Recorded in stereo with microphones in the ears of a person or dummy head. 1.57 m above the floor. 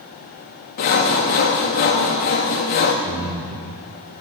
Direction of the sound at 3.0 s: 35° right (ahead or behind).